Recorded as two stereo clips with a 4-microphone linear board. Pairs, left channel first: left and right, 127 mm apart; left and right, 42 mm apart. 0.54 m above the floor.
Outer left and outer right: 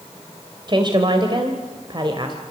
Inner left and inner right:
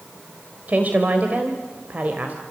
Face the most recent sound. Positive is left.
turn(degrees=-35)  # may be behind; listen again after turning